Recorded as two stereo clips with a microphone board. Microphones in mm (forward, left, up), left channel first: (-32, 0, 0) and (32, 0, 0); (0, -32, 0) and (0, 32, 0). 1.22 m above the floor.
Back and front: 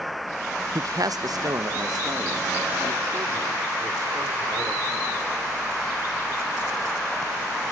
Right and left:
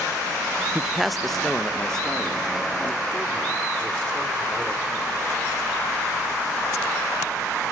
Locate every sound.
0.8 s a man speaking: 10° left, 0.5 m; by 5.1 s 15° right, 5 m